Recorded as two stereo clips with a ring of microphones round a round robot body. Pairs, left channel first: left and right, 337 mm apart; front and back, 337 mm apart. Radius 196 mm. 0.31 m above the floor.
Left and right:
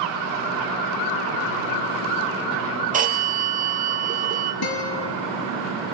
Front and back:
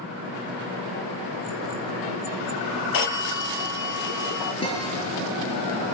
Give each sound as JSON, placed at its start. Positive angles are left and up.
{"t": 2.9, "sound": "a phone ringing", "azimuth_deg": -25, "distance_m": 5.0}
{"t": 4.6, "sound": "a guitar", "azimuth_deg": 75, "distance_m": 5.5}